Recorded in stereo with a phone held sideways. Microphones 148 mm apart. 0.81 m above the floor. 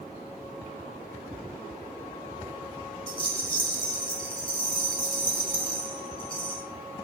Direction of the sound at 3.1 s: 35° left (ahead or behind).